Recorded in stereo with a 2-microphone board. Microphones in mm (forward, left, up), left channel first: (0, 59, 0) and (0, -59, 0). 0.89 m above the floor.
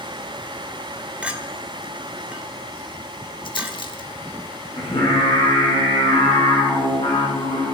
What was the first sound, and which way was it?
A clink, 10° right (ahead or behind).